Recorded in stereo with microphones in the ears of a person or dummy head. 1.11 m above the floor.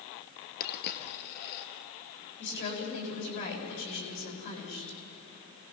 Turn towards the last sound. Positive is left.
turn(degrees=55)  # may be behind; listen again after turning